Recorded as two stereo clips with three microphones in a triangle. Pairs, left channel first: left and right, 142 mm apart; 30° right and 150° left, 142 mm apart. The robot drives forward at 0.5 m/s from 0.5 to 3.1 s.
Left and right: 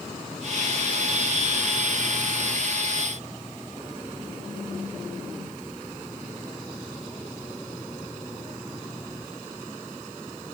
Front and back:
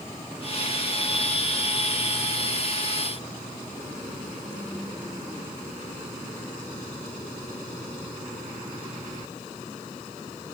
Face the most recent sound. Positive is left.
No sound to turn to.